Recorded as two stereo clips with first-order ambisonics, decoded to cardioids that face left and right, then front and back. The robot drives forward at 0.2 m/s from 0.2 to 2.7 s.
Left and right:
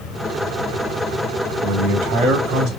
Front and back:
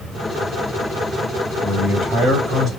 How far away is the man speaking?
About 1.8 m.